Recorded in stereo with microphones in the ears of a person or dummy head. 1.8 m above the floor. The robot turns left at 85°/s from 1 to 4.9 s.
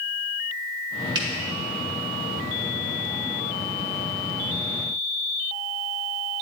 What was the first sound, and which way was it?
A finger snap, 25° right (ahead or behind).